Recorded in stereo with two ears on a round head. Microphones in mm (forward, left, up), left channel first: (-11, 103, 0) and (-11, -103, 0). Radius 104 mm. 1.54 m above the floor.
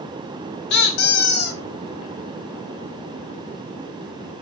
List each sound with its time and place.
0.7 s a squeak: 50° left (ahead or behind), 0.6 m